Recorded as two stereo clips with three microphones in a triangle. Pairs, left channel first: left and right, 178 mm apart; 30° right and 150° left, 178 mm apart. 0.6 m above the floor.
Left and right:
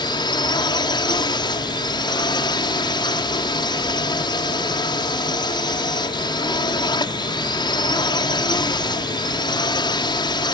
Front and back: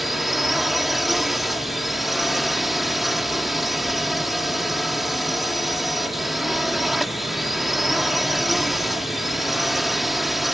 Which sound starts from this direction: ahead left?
A drone, at 0.0 s.